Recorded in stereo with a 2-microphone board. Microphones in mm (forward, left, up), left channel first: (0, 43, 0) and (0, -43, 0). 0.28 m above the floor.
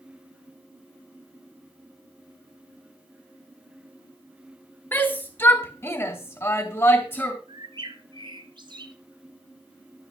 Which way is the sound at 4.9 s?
20° left (ahead or behind).